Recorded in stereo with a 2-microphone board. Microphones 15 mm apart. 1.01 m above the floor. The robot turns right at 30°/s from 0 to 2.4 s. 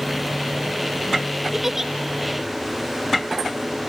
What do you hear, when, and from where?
1.5 s a giggle: 15° right (ahead or behind); by 1.9 s 30° right (ahead or behind)